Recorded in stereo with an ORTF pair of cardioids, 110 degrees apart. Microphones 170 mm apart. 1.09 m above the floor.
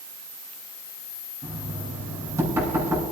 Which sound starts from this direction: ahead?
Knocking, at 1.4 s.